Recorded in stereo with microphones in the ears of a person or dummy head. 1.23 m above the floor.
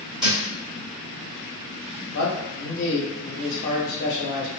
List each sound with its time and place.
0.2 s a thud: centre (ahead or behind), 1.7 m
2.1 s a man speaking: 65° left (ahead or behind), 1.1 m